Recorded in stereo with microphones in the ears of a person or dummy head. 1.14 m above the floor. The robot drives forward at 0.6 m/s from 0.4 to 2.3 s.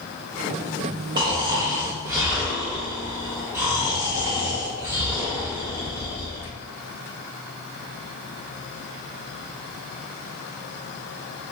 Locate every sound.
1.2 s snoring: 25° right (ahead or behind), 0.9 m; by 6.5 s 15° right (ahead or behind), 1.5 m